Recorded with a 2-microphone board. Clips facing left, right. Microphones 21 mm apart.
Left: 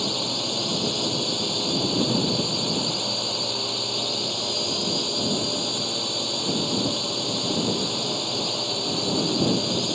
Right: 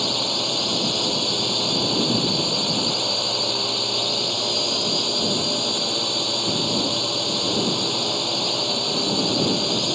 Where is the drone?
20° right (ahead or behind).